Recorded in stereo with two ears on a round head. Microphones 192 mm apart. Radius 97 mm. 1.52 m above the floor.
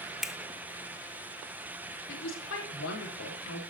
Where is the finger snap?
Centre (ahead or behind), 0.9 m.